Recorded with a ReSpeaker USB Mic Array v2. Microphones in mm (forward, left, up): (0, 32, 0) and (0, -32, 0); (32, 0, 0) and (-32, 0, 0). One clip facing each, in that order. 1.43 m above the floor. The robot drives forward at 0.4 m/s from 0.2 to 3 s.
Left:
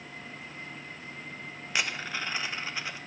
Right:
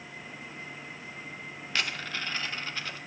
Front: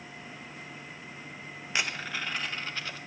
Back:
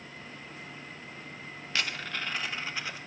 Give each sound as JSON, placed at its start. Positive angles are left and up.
{"t": 1.7, "sound": "a dropped coin", "azimuth_deg": 30, "distance_m": 0.7}